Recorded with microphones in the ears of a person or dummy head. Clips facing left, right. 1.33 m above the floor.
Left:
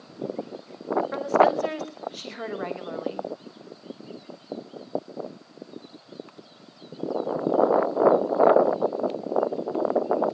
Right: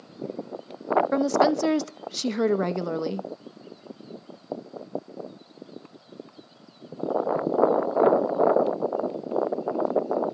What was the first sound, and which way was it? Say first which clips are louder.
A woman speaking: left 2 dB; 55° right (ahead or behind).